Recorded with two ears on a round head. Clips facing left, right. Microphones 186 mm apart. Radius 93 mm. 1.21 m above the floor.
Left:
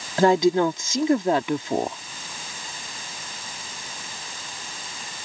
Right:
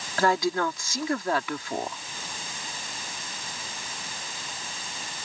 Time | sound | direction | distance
0.2 | a woman speaking | 20° left (ahead or behind) | ?